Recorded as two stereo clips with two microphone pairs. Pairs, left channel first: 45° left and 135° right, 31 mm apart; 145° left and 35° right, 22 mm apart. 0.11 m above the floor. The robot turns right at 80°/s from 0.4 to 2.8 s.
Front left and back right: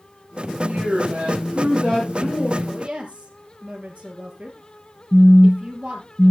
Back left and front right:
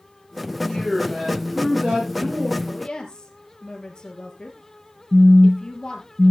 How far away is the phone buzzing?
About 0.9 m.